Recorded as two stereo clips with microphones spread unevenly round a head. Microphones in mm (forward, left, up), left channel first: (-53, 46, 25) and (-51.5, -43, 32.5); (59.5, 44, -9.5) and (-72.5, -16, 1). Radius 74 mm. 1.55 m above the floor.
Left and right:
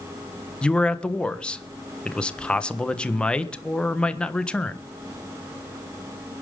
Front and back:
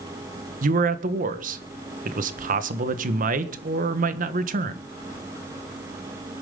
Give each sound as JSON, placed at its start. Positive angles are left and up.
{"t": 0.6, "sound": "a man speaking", "azimuth_deg": 170, "distance_m": 1.5}